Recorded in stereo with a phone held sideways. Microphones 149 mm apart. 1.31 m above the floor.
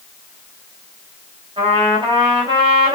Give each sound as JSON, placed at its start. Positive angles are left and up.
{"t": 1.6, "sound": "a trumpet", "side_deg": -35, "distance_m": 4.0}